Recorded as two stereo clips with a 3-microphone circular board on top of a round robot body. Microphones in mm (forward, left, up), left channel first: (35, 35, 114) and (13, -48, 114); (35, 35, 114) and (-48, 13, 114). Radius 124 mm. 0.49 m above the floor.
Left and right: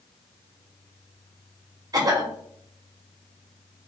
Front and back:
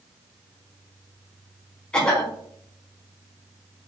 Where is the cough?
65° right, 1.3 m.